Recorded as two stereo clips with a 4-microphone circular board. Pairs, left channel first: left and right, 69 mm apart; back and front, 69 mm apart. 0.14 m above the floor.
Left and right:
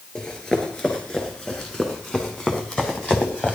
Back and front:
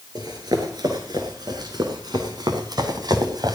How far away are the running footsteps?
About 5.5 m.